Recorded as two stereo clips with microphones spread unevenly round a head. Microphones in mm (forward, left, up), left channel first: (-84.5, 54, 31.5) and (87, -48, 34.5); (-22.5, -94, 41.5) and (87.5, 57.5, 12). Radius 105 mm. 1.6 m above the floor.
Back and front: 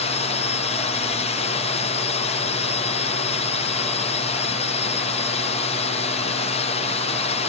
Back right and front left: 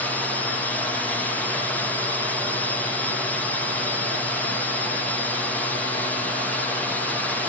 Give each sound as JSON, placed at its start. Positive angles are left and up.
{"t": 0.0, "sound": "a drone", "azimuth_deg": 145}